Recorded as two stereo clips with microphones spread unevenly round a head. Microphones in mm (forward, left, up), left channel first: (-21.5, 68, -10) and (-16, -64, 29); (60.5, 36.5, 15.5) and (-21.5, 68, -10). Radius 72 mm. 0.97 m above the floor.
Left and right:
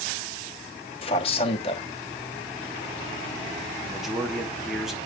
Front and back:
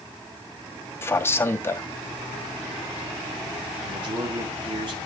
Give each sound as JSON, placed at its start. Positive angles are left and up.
{"t": 1.0, "sound": "a man speaking", "azimuth_deg": 45, "distance_m": 1.3}
{"t": 3.8, "sound": "a man speaking", "azimuth_deg": 180, "distance_m": 2.0}